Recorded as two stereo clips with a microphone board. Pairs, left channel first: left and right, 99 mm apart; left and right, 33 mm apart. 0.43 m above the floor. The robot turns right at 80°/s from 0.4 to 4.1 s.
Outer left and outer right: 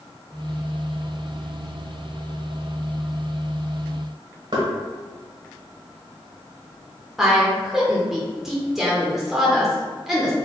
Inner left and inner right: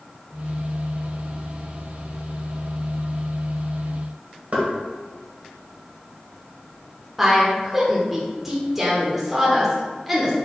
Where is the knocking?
50° right (ahead or behind), 1.2 m.